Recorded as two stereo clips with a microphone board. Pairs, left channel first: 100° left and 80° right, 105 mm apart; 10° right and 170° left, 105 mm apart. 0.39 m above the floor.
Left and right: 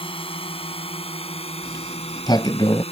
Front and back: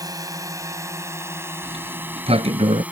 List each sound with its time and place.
0.0 s a drone: 120° left; by 2.9 s 95° left
1.6 s a sliding door: 150° left